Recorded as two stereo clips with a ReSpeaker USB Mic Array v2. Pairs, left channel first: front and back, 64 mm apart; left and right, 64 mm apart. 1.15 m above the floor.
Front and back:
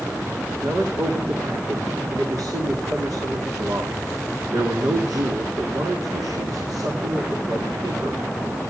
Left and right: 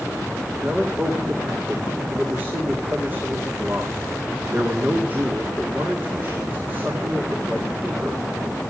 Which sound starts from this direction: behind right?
A man speaking, at 0.6 s.